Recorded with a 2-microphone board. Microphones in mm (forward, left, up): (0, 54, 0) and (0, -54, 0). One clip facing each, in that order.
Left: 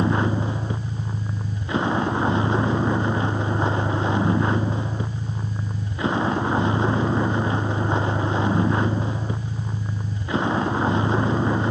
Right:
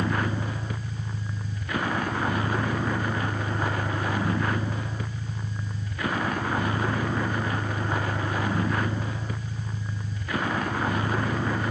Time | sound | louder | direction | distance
0.0 | a vehicle | left 6 dB | 25° left (ahead or behind) | ?